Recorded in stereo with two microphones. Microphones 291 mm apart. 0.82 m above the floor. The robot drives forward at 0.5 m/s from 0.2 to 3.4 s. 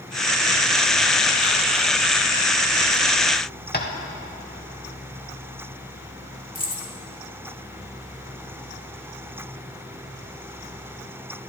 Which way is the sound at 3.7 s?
35° left (ahead or behind).